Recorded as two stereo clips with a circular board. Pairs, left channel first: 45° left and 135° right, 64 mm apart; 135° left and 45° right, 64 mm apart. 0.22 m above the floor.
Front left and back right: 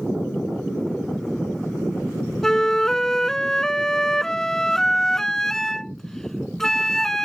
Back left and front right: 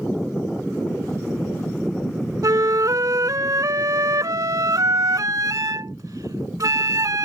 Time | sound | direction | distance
2.4 | a flute | 35° right | ?